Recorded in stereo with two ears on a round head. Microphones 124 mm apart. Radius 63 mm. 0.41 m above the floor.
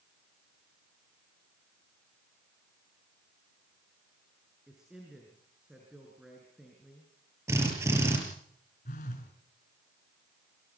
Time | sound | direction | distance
4.7 | a man speaking | 5° right (ahead or behind) | 6 m
7.5 | a drill | 20° right (ahead or behind) | 6 m
8.8 | a phone buzzing | 55° left (ahead or behind) | 4.5 m